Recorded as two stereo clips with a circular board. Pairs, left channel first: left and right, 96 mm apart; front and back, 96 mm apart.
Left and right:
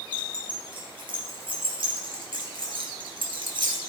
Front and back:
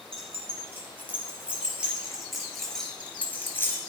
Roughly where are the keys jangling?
Behind right.